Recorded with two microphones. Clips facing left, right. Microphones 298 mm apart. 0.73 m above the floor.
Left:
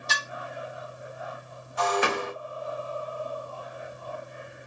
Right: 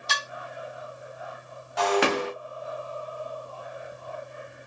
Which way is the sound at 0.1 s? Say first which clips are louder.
Right 1 dB; 85° right.